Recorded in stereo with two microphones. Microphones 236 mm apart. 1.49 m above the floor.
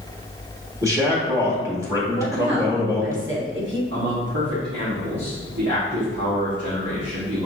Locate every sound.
0.8 s a man speaking: 15° right (ahead or behind), 1.5 m
2.1 s a woman speaking: 55° right (ahead or behind), 1.2 m
3.9 s a man speaking: 80° right, 1.3 m